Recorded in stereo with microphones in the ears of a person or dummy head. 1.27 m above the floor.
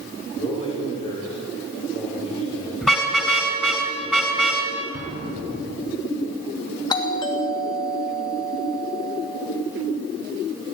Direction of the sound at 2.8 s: Centre (ahead or behind).